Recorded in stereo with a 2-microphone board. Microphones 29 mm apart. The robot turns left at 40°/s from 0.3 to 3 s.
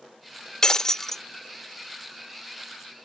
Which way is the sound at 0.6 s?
25° left (ahead or behind).